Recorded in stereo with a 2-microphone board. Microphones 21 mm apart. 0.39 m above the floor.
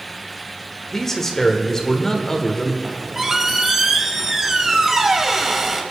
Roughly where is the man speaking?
Centre.